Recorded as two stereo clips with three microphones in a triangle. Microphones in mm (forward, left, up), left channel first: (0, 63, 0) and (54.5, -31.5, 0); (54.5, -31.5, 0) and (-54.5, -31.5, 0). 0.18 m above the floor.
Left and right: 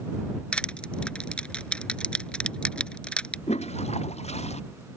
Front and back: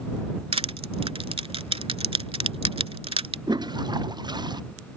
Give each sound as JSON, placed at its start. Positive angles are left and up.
{"t": 0.5, "sound": "crushing", "azimuth_deg": -160}
{"t": 3.5, "sound": "a toilet flushing", "azimuth_deg": 130}